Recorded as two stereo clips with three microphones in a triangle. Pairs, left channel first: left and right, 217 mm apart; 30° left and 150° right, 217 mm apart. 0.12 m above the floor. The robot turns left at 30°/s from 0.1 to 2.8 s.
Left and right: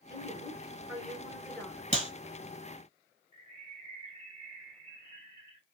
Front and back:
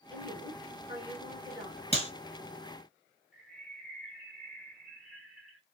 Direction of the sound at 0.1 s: 145° right.